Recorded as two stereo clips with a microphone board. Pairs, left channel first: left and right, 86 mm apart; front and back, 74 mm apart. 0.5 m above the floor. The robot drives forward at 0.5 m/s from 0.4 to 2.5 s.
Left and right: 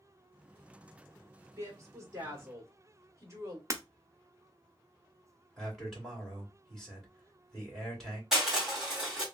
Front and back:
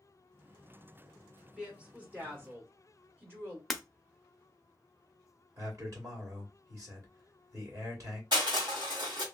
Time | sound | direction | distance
1.6 | a woman speaking | 110° right | 1.5 m
3.7 | breaking glass | 85° right | 0.6 m
5.6 | a man speaking | 175° left | 1.8 m
8.3 | crushing | 175° right | 1.6 m